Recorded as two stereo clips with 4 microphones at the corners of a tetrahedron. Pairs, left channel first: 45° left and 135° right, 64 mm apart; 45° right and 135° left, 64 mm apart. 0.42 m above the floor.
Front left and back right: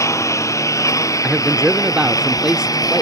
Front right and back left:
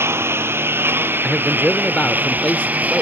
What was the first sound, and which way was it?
A lawn mower, 85° left.